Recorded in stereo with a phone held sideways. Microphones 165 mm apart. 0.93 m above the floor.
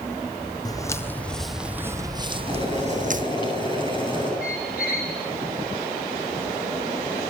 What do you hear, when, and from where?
0.7 s footsteps: 25° left (ahead or behind), 1.7 m; by 3.2 s 55° right (ahead or behind), 1.8 m
2.5 s boiling: 30° left (ahead or behind), 9.5 m
4.4 s a squeak: 65° left (ahead or behind), 3.5 m